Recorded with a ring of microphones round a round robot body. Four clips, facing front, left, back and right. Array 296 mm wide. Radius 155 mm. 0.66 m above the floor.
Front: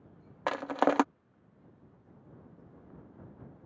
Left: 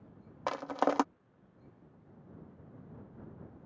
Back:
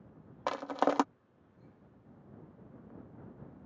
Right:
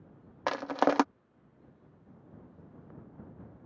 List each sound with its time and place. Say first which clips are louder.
0.5 s crushing: right 3 dB, front 3 dB; 40° right